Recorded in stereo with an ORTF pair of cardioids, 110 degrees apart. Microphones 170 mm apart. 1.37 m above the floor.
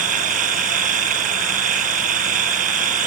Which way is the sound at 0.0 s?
55° right.